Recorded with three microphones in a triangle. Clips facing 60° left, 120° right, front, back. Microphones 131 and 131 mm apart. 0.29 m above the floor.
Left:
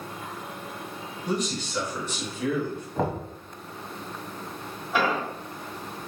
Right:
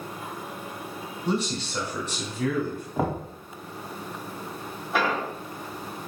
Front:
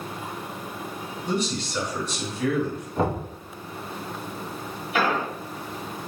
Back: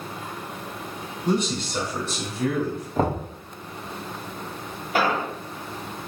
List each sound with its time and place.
1.2 s a man speaking: straight behind, 1.9 m; by 2.9 s 145° right, 1.8 m
3.0 s knocking: 155° left, 1.2 m
4.9 s an explosion: 160° left, 2 m